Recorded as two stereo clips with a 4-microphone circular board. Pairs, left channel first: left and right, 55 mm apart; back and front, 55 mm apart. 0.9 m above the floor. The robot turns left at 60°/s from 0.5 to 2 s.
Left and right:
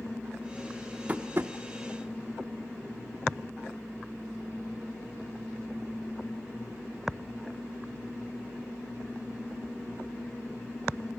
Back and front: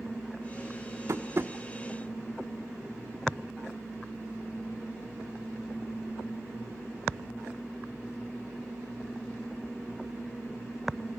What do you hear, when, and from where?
1.1 s tapping: 25° right, 1.0 m; by 1.5 s 50° right, 1.0 m